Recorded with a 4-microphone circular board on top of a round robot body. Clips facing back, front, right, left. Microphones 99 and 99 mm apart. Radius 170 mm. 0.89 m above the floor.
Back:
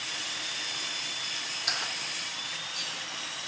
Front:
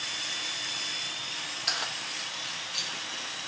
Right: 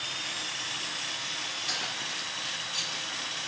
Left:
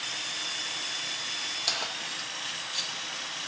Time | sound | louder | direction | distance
1.7 | keys jangling | front 1 dB, left 2 dB | 90° left | 0.7 m